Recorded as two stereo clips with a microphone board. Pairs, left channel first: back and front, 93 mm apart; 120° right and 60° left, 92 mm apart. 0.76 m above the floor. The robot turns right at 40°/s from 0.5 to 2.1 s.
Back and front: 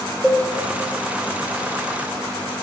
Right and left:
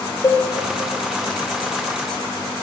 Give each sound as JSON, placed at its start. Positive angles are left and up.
{"t": 0.2, "sound": "a cowbell", "azimuth_deg": -80, "distance_m": 0.9}